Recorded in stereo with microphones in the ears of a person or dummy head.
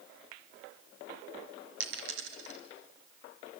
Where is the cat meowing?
No cat meowing in this recording.